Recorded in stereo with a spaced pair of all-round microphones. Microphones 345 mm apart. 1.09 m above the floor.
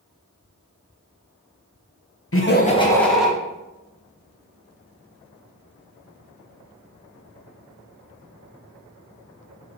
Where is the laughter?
45° left (ahead or behind), 0.8 m; by 3.3 s 5° right (ahead or behind), 1.4 m.